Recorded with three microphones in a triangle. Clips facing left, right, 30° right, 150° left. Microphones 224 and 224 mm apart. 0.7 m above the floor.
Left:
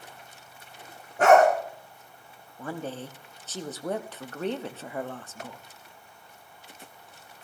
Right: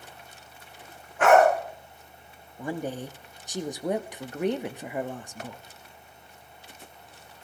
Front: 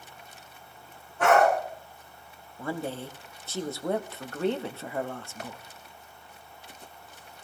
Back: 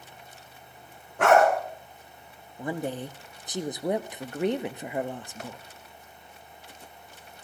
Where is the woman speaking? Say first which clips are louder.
Right 3 dB, back 2 dB; 150° right, 0.6 m.